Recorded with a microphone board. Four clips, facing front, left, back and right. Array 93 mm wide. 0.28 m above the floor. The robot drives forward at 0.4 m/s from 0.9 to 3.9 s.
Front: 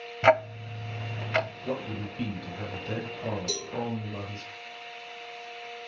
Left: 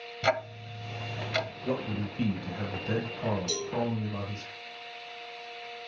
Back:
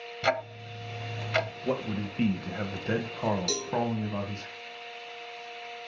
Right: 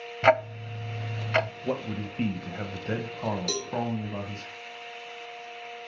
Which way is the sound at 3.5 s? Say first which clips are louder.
Right 1 dB, back 2 dB; 120° right.